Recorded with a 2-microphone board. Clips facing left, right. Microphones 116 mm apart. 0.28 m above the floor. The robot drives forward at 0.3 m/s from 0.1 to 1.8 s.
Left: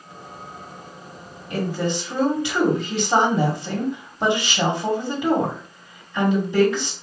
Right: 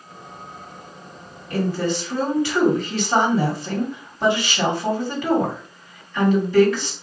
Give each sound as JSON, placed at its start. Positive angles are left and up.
{"t": 1.5, "sound": "a woman speaking", "side_deg": 20, "distance_m": 1.5}